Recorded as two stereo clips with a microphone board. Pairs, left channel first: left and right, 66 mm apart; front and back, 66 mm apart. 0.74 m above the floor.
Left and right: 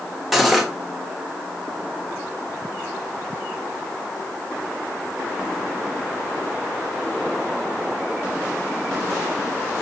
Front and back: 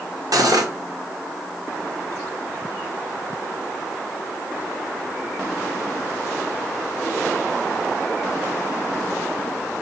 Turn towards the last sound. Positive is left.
turn(degrees=-175)